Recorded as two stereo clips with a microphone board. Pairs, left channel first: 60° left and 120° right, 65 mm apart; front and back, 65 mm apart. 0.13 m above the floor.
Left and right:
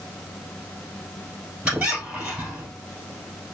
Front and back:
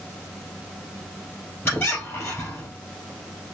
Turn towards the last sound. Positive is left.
turn(degrees=-45)